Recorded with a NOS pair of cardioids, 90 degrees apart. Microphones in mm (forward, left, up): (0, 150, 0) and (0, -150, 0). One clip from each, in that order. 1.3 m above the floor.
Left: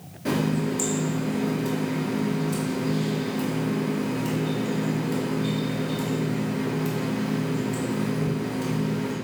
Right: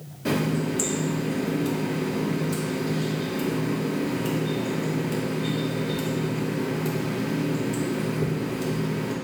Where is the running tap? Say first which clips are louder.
Even; 10° right, 0.9 m.